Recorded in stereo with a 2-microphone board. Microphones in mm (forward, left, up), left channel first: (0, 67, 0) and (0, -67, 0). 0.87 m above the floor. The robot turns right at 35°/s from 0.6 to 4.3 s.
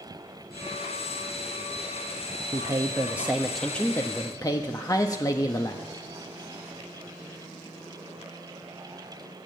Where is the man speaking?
35° right, 0.8 m; by 5.9 s 30° left, 0.8 m.